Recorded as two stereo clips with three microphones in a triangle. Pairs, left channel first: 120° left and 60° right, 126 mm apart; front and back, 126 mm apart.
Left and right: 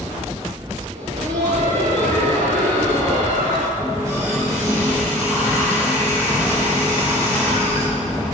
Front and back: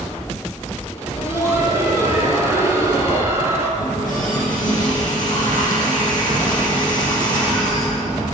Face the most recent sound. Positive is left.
turn(degrees=10)